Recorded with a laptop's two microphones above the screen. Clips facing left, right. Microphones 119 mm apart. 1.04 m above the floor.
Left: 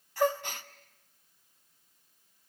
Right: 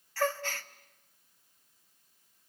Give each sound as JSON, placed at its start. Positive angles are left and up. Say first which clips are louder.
{"t": 0.2, "sound": "a gasp", "louder": "left 3 dB", "side_deg": 15, "distance_m": 0.8}